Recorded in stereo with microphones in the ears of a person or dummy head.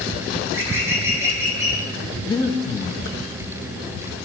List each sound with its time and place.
0.4 s a bird: 15° right (ahead or behind), 6 m
2.3 s breathing: 25° left (ahead or behind), 1.6 m